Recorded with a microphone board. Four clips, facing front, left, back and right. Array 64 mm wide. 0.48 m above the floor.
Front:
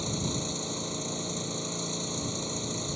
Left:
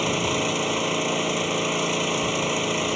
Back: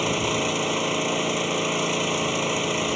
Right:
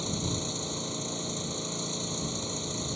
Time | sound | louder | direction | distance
0.0 | an engine running | left 10 dB, back 10 dB | 135° left | ?